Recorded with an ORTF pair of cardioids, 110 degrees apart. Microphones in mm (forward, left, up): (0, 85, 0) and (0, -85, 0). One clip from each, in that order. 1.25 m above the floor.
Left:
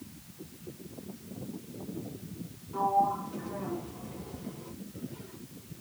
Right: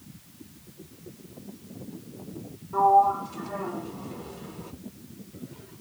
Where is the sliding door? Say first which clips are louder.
Right 8 dB; 65° right, 1.0 m.